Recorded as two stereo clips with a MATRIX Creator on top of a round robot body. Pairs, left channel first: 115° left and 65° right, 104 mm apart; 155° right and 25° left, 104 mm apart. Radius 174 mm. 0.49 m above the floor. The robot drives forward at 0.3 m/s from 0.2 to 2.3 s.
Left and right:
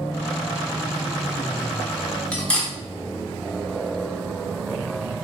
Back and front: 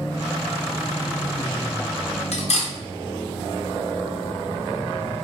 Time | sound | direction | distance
2.3 | cutlery clinking | 170° right | 0.8 m